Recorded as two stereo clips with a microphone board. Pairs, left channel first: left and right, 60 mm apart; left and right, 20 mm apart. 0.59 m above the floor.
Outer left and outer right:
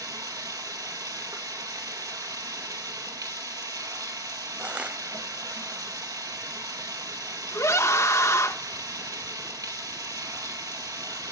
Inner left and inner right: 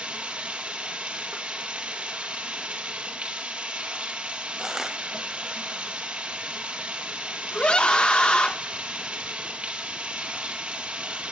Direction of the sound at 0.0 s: 80° right.